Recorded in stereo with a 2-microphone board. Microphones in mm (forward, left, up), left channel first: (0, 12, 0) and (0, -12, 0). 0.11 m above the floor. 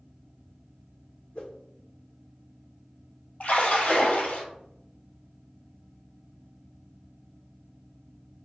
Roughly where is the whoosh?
Left.